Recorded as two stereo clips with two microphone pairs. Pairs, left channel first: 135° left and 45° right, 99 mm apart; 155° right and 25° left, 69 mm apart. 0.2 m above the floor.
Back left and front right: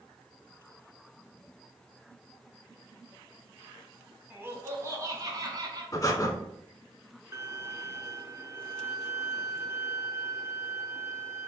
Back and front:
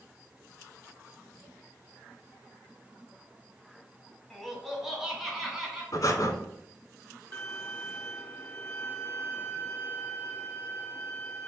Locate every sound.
4.3 s laughter: 65° right, 1.2 m; by 5.8 s 55° right, 1.6 m
5.9 s breathing: straight behind, 0.6 m
7.3 s a violin: 105° right, 0.6 m